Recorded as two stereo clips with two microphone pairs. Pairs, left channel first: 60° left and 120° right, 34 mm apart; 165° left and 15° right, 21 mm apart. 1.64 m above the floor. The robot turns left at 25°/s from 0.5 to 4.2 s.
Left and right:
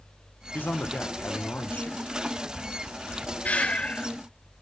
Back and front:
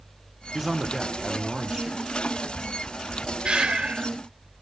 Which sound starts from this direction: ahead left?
A man speaking, at 0.5 s.